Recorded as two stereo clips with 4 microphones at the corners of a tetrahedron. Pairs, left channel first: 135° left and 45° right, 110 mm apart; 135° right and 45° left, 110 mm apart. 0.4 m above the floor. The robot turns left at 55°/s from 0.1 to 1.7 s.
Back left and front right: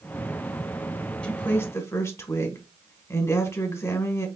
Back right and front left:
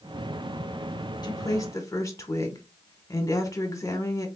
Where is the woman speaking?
150° right, 1.2 m; by 4.3 s 175° right, 1.2 m.